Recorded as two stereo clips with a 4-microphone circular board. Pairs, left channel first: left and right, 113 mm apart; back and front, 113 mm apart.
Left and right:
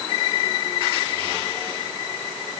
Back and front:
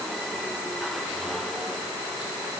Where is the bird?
No bird in this recording.